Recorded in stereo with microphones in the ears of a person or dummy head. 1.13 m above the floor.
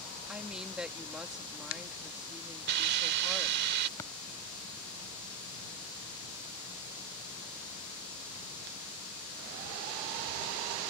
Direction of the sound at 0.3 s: 5° right (ahead or behind).